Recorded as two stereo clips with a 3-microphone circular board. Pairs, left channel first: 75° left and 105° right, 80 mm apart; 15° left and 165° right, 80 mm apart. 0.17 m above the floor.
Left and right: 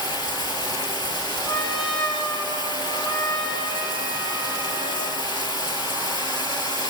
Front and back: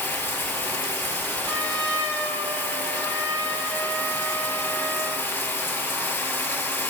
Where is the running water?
80° left, 2.0 m.